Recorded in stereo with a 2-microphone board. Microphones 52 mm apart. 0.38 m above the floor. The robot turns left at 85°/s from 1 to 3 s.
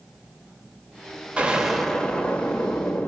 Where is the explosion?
145° right, 0.9 m; by 3.1 s 75° left, 0.9 m.